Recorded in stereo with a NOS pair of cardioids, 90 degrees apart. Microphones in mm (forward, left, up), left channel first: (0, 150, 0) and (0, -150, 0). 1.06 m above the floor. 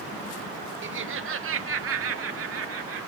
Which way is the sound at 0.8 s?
45° right.